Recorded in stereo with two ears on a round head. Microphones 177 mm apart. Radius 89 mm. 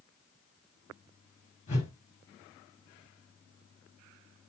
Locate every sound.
1.7 s a whoosh: 40° left (ahead or behind), 3.5 m